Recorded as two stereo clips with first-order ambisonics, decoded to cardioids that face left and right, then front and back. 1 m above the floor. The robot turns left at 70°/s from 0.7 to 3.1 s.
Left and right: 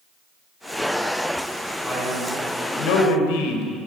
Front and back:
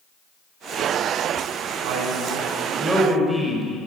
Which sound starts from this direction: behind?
A man speaking, at 1.8 s.